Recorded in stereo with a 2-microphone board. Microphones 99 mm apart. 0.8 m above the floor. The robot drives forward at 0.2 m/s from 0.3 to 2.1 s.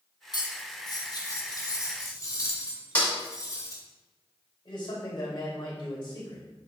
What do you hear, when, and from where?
0.3 s cutlery clinking: 45° left (ahead or behind), 0.8 m; by 3.8 s 35° left (ahead or behind), 1.1 m
3.0 s a snare drum: 20° left (ahead or behind), 3 m
4.7 s a man speaking: 45° left (ahead or behind), 3 m